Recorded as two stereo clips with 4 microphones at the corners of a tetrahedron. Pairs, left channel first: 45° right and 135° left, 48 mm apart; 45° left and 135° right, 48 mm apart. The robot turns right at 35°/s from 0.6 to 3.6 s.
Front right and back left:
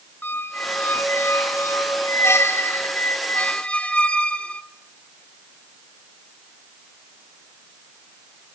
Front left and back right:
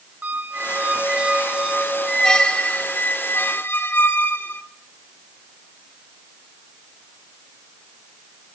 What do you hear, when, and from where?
0.2 s a squeak: 90° right, 1.5 m; by 4.6 s 15° left, 1.5 m